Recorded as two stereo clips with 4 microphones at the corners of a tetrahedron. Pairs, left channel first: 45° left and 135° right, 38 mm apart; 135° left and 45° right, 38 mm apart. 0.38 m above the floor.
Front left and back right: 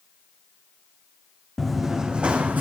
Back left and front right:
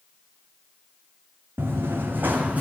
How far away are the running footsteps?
About 1.6 m.